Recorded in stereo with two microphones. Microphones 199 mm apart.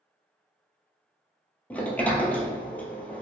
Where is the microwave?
I don't hear a microwave.